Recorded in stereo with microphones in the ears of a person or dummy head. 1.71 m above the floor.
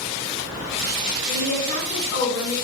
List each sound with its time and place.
1.3 s a woman speaking: 85° left, 1.6 m